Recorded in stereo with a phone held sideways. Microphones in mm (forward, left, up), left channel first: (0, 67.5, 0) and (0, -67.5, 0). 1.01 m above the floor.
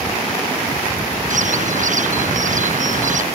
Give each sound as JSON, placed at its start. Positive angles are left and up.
{"t": 1.3, "sound": "a bird", "side_deg": -65}